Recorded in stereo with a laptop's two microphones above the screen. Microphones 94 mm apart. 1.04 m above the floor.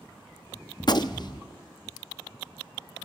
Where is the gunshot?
50° left (ahead or behind), 0.6 m.